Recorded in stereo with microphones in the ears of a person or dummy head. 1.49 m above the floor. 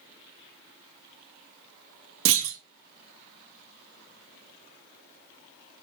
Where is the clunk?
65° right (ahead or behind), 0.7 m.